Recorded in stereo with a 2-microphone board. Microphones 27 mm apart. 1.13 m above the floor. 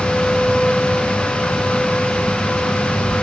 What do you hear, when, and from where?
Only background noise.